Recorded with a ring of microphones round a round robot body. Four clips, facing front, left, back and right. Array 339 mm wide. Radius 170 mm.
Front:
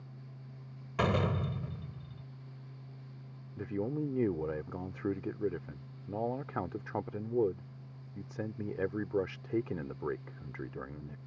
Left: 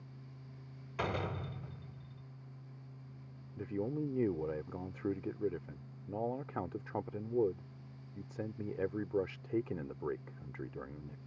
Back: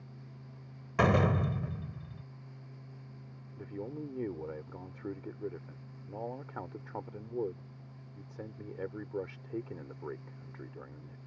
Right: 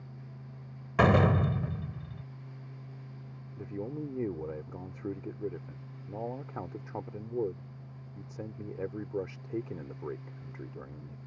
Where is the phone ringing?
No phone ringing in this recording.